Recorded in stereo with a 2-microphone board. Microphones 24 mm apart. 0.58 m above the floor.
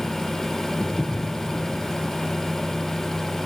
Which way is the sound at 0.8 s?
80° left.